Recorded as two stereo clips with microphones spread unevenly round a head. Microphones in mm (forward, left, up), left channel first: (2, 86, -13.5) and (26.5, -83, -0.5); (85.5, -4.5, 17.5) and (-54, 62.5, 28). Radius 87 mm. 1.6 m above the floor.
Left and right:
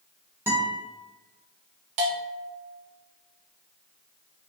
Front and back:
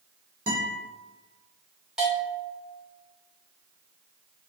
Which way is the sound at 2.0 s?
120° right.